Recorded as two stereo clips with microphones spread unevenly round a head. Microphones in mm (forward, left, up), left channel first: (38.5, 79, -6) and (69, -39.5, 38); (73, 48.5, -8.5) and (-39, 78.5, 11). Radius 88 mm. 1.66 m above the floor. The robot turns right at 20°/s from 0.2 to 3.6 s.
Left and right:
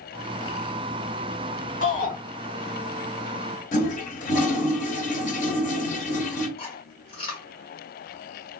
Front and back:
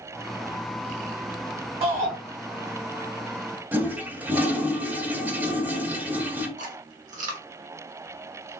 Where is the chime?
No chime in this recording.